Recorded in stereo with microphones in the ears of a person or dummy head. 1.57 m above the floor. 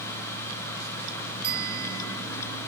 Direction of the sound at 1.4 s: 50° right (ahead or behind).